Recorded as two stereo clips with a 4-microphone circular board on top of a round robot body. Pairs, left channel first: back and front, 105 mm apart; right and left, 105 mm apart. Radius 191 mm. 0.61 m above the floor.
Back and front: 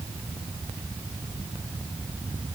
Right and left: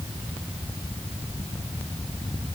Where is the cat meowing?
No cat meowing in this recording.